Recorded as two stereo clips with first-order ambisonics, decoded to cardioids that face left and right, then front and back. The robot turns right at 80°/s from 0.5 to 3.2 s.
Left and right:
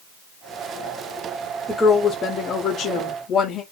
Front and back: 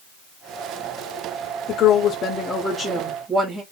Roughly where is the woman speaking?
Ahead.